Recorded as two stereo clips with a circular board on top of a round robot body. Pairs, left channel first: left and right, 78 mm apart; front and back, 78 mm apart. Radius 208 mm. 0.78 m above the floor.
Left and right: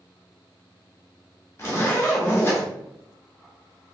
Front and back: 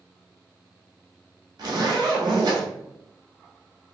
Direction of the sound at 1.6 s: 150° left.